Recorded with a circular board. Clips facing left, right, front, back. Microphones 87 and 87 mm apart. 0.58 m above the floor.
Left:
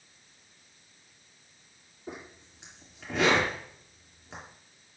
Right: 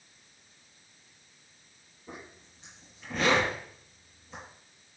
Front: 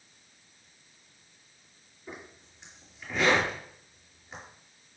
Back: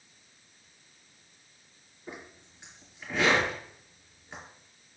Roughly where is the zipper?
Left.